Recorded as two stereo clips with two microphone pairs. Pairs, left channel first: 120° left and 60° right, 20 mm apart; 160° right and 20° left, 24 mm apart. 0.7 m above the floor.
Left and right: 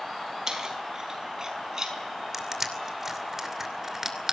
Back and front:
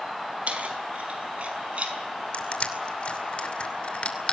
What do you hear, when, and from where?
0.5 s keys jangling: 5° right, 4 m; by 2.0 s straight ahead, 5 m
2.3 s crushing: 130° right, 2.5 m